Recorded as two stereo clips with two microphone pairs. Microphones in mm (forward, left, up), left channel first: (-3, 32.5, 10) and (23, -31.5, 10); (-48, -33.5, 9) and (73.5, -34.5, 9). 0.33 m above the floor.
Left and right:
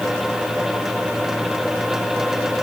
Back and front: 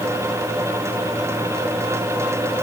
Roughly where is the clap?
I don't hear a clap.